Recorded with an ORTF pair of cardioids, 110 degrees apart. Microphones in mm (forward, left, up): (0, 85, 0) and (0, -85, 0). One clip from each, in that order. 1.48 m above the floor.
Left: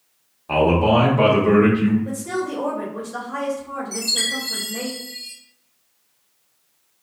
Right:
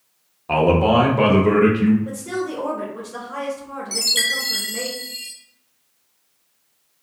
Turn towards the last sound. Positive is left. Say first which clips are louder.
# right 3 dB
turn(degrees=-55)